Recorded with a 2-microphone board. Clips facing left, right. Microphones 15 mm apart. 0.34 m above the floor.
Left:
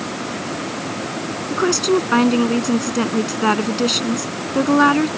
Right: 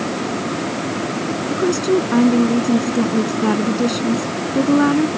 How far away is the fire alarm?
No fire alarm in this recording.